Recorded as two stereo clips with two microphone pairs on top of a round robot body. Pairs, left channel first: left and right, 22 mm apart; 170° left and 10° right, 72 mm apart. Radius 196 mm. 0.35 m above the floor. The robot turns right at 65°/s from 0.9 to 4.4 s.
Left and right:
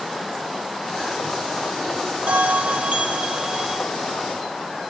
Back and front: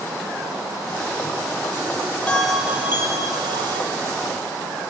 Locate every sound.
2.3 s a bell: 115° right, 1.4 m; by 3.8 s 15° right, 1.4 m